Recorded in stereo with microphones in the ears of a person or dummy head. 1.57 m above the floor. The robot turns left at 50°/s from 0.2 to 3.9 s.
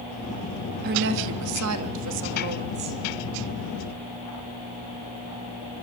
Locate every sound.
0.8 s a woman speaking: 50° right, 2.5 m; by 3.0 s 160° right, 2.5 m